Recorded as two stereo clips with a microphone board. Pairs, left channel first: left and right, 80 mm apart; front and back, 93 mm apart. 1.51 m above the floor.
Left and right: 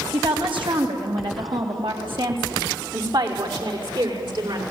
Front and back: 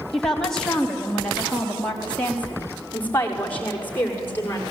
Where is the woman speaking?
85° right, 3.5 m; by 4.6 s 70° right, 5.5 m.